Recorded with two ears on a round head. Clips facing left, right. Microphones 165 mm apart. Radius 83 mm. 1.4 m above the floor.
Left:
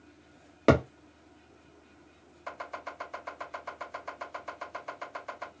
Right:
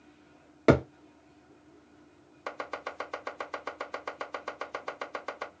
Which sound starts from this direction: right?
Chopping, at 2.5 s.